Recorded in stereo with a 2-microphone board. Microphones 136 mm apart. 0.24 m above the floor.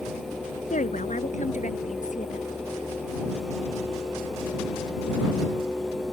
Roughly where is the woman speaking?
Left.